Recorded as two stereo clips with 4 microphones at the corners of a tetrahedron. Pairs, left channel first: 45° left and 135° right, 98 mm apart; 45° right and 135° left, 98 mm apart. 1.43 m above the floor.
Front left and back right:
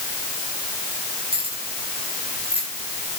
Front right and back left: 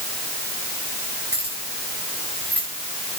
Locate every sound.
1.3 s keys jangling: 110° right, 8.5 m; by 2.7 s 125° right, 8.5 m